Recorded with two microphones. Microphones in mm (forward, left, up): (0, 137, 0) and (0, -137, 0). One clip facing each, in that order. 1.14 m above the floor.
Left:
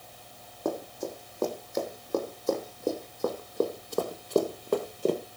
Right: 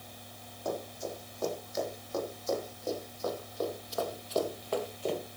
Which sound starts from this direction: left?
Running footsteps, at 0.7 s.